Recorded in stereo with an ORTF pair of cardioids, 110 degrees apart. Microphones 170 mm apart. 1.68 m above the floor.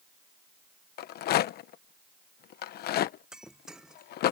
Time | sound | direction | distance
1.0 | a rattle | 70° left | ?
3.3 | breaking glass | 5° right | ?